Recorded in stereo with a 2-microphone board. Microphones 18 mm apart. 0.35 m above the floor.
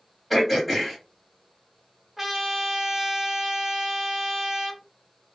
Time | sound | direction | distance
0.3 | throat clearing | centre (ahead or behind) | 2 m
2.2 | a trumpet | 15° right (ahead or behind) | 1.3 m